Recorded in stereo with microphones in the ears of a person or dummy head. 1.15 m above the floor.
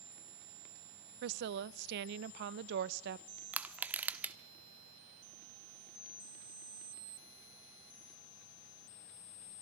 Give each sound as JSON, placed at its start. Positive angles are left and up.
{"t": 1.2, "sound": "a woman speaking", "side_deg": -60, "distance_m": 0.6}
{"t": 3.5, "sound": "crushing", "side_deg": -15, "distance_m": 0.9}